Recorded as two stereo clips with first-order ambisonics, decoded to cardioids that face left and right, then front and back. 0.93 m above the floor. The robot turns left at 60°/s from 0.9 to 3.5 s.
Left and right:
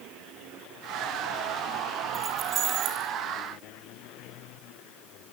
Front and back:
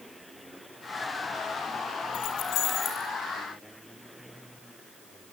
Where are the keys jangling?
20° right, 4 m; by 3.1 s 75° right, 4 m.